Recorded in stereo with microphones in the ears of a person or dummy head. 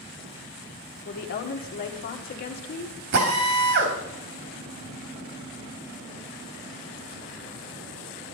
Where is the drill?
60° right (ahead or behind), 2.5 m.